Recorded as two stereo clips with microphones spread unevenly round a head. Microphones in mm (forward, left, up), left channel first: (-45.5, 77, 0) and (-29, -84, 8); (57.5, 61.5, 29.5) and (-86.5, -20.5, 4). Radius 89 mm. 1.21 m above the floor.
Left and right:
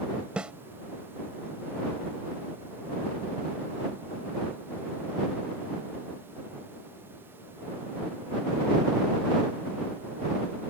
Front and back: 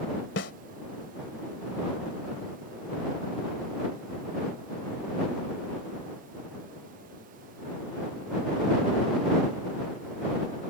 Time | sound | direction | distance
0.4 | a snare drum | straight ahead | ?